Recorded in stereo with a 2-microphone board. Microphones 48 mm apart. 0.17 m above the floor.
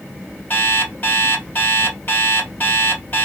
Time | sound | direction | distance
0.5 | an alarm clock | 50° left (ahead or behind) | 2.5 m